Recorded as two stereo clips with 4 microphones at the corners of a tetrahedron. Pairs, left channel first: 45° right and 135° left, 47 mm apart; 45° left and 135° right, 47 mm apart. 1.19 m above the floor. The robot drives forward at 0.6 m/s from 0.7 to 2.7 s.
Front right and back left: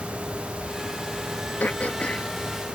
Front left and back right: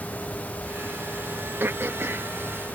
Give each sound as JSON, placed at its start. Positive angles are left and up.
{"t": 1.6, "sound": "throat clearing", "azimuth_deg": -100}